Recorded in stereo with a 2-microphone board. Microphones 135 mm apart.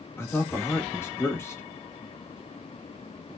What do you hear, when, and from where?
0.2 s a man speaking: 15° left (ahead or behind), 1.3 m